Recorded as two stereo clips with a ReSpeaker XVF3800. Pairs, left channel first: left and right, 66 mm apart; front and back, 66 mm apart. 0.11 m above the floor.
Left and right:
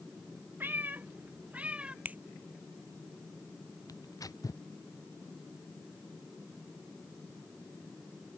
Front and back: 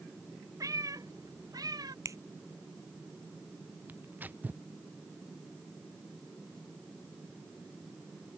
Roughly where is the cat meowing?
Behind right.